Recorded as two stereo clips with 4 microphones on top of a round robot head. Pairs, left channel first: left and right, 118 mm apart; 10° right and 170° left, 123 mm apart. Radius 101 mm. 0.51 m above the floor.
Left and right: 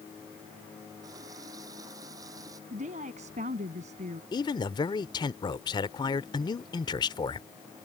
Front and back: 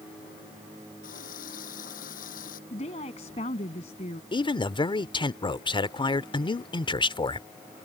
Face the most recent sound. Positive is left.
turn(degrees=40)